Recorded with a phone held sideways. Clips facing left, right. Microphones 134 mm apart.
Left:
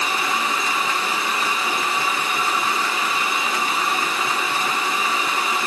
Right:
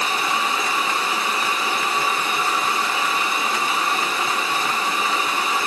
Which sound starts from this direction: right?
A fan, at 0.0 s.